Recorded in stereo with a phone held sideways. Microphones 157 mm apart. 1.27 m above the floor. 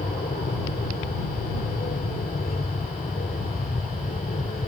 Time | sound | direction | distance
0.0 | an aircraft | 75° left (ahead or behind) | ?